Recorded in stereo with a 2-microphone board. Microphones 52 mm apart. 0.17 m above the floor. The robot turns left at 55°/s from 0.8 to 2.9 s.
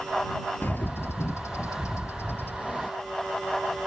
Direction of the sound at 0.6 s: 135° left.